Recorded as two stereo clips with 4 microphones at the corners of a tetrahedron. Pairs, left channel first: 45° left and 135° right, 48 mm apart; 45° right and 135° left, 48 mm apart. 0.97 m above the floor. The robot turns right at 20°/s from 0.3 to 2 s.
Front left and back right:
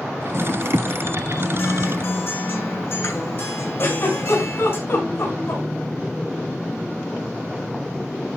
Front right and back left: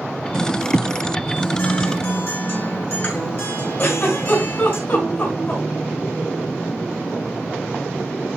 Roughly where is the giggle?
Ahead.